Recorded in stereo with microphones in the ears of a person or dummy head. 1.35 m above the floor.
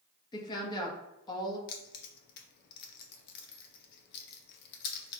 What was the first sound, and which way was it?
A woman speaking, 30° left (ahead or behind).